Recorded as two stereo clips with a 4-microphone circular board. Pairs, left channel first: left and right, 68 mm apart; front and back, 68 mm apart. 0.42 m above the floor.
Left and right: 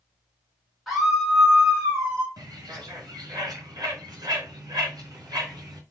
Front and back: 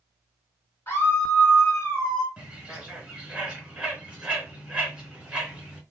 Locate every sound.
0.9 s a scream: straight ahead, 1.7 m; by 2.3 s 40° right, 1.9 m
2.4 s a bird: 105° right, 1.5 m